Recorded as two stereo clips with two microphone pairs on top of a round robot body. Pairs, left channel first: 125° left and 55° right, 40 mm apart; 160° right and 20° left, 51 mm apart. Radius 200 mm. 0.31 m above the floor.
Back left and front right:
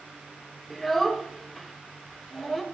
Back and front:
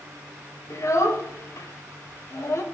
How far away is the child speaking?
About 1.7 m.